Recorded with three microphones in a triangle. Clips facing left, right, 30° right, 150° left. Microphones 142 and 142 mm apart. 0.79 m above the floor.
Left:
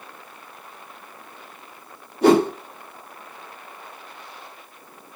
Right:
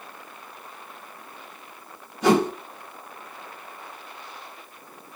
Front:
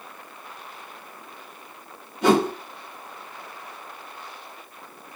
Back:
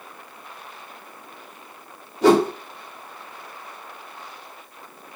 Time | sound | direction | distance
2.2 | a whoosh | 100° left | 1.9 m